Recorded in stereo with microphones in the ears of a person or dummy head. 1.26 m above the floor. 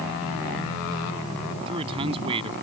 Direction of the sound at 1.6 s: 30° right (ahead or behind).